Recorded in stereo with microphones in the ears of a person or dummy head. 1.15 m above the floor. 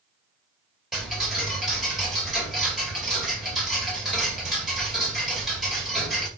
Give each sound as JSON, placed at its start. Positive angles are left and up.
{"t": 0.9, "sound": "ticking", "side_deg": 0, "distance_m": 2.5}